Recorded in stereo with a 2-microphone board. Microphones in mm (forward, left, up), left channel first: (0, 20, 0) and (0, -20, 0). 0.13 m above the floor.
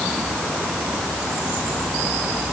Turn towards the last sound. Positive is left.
No sound to turn to.